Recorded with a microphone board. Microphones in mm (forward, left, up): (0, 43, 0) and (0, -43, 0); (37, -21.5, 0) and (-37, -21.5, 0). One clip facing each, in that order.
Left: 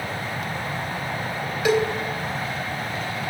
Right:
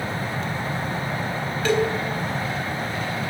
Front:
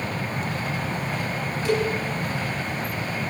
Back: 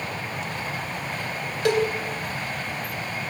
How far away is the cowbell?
About 3 m.